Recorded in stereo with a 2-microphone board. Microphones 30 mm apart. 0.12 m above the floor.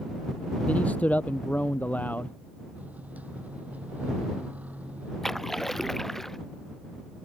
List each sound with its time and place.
0.7 s a man speaking: 50° left (ahead or behind); by 2.3 s 65° left (ahead or behind)
2.8 s a microwave: 55° right (ahead or behind)
5.2 s a splash: 10° left (ahead or behind)